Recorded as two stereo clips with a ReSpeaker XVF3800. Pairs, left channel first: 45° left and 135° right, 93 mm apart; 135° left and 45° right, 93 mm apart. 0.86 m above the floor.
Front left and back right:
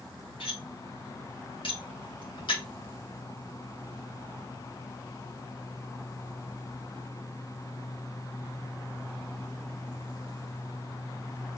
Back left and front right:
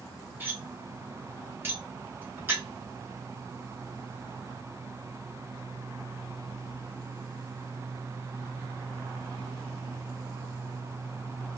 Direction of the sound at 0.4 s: 20° left.